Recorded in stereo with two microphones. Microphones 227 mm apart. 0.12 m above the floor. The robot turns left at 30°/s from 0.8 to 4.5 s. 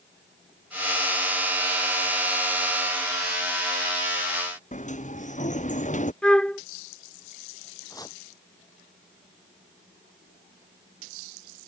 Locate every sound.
4.7 s a sliding door: 30° left (ahead or behind)
6.2 s a flute: 5° left (ahead or behind)
7.9 s chopping: 15° left (ahead or behind)